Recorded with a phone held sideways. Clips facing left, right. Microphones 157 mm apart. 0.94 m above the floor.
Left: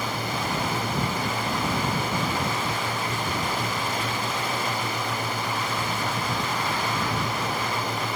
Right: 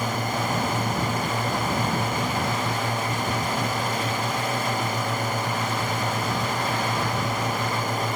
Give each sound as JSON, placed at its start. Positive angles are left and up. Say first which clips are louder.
{"t": 0.0, "sound": "a drone", "louder": "right 3 dB", "side_deg": -45}